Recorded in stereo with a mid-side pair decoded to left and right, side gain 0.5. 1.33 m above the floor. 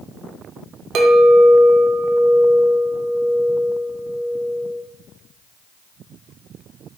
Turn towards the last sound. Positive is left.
turn(degrees=-60)